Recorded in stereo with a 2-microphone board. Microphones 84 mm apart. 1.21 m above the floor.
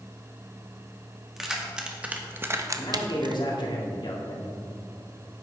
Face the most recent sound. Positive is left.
turn(degrees=65)  # may be behind; listen again after turning